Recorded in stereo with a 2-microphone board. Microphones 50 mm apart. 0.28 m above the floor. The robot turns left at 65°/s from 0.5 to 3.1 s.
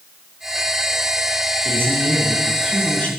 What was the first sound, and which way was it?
A man speaking, 120° right.